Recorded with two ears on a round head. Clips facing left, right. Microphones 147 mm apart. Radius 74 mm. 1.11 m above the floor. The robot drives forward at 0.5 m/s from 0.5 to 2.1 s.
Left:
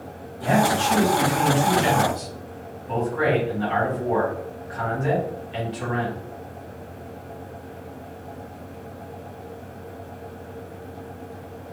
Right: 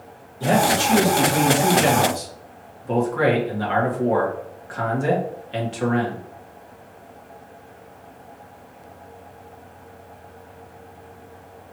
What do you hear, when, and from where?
0.4 s a man speaking: 45° right (ahead or behind), 2.5 m; by 6.2 s 55° right (ahead or behind), 2 m